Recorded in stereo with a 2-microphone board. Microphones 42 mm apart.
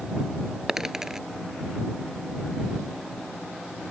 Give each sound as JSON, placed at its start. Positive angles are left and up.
{"t": 0.7, "sound": "a dropped coin", "side_deg": -15}